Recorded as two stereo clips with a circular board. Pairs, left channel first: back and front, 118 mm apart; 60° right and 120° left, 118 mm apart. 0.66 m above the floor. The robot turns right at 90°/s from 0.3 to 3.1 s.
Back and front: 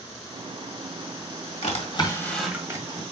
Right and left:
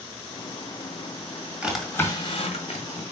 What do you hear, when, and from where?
1.6 s a drawer: 165° right, 1.9 m; by 3.0 s 35° right, 1.9 m